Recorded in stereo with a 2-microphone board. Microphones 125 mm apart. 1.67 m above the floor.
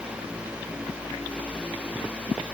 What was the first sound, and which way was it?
Only background noise.